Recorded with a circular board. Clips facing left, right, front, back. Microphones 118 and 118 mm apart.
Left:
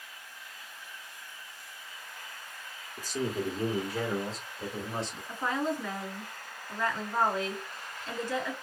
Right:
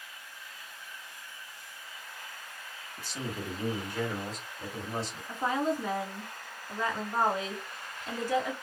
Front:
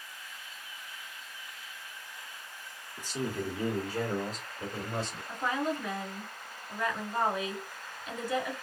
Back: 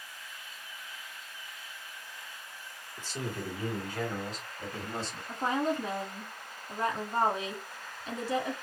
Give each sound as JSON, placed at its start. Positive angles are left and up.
{"t": 3.0, "sound": "a man speaking", "azimuth_deg": 75, "distance_m": 1.4}
{"t": 5.3, "sound": "a woman speaking", "azimuth_deg": -160, "distance_m": 1.4}